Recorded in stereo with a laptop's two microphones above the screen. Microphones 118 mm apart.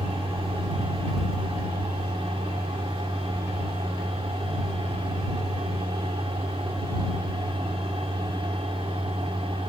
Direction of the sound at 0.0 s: 55° right (ahead or behind).